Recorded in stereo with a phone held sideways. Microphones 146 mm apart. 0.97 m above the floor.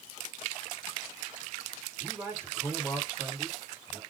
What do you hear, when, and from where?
2.0 s a man speaking: 15° right (ahead or behind), 4 m